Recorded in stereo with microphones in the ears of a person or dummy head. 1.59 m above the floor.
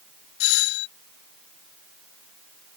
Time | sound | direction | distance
0.4 | a doorbell | 70° left (ahead or behind) | ?